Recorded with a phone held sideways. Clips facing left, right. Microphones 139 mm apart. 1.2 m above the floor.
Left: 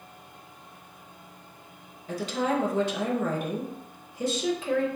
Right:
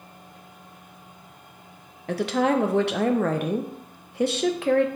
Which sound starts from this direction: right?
A woman speaking, at 2.1 s.